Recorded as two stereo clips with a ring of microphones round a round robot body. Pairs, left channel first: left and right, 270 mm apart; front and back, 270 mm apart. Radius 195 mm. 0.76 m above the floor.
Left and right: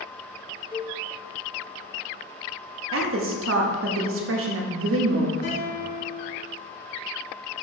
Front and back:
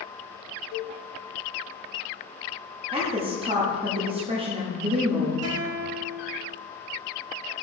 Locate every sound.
0.7 s a cowbell: 30° left, 1.2 m
2.9 s a woman speaking: 110° right, 0.9 m
5.4 s a guitar: 155° left, 1.4 m